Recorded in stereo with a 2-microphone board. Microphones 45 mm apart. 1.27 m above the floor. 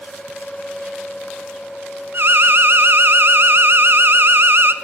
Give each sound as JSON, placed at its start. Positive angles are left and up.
{"t": 2.1, "sound": "an alarm", "side_deg": -55, "distance_m": 0.9}